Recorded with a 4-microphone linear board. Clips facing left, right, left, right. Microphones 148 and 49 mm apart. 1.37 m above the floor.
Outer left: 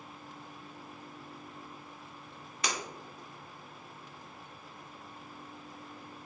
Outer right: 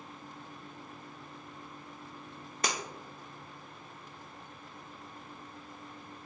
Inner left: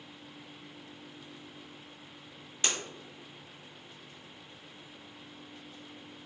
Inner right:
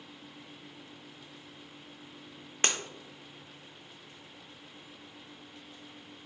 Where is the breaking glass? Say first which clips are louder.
Outer right 2 dB, inner right 3 dB; 45° right (ahead or behind), 0.8 m.